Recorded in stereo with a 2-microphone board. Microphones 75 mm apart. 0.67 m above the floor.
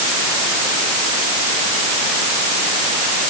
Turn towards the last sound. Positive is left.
No sound to turn to.